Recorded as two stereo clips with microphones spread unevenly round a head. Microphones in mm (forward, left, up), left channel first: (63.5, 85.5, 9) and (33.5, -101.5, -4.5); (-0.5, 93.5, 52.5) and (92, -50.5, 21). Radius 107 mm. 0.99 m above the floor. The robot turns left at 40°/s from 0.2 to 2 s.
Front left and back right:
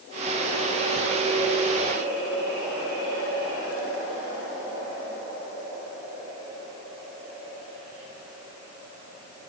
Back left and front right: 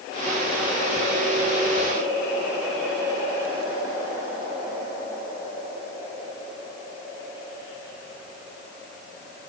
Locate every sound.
Only background noise.